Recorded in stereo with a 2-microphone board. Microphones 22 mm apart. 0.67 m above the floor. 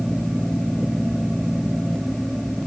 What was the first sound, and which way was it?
Only background noise.